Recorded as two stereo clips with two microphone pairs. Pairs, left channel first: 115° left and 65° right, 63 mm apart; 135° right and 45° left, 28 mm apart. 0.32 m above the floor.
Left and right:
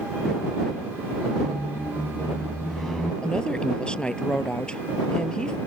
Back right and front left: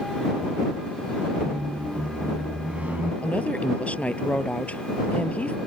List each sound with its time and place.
1.4 s a squeak: 35° left
3.2 s a woman speaking: 170° right